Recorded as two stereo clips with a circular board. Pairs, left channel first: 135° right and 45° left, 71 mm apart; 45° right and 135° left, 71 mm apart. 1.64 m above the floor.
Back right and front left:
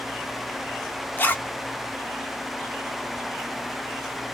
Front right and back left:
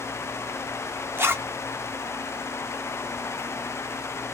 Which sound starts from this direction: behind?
A zipper, at 1.2 s.